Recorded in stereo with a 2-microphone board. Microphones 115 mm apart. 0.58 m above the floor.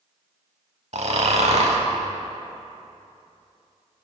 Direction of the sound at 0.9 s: 65° right (ahead or behind).